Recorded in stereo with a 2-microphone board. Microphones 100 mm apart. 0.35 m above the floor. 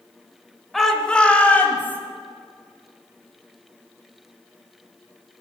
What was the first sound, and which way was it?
A shout, centre (ahead or behind).